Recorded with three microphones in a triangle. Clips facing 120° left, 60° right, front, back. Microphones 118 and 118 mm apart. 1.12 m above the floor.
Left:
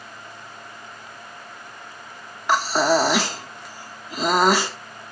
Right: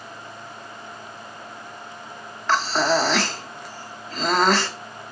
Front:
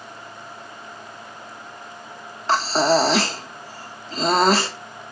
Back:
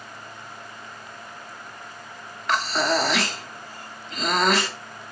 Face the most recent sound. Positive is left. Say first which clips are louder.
# left 2 dB, front 5 dB
turn(degrees=45)